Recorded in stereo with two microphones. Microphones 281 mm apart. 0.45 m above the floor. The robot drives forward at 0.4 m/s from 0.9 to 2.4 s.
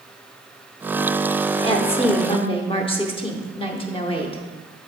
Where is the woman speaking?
20° left (ahead or behind), 0.8 m.